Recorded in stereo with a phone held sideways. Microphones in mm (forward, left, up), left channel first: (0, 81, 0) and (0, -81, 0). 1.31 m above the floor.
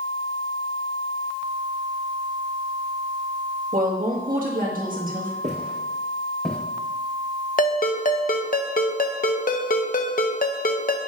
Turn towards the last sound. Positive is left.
turn(degrees=60)  # may be behind; listen again after turning